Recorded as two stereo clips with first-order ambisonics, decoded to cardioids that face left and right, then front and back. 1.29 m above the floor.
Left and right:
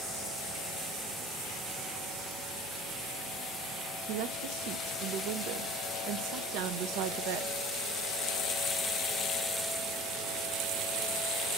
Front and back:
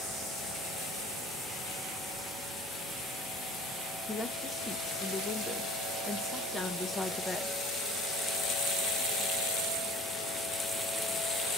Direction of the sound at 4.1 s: 85° right.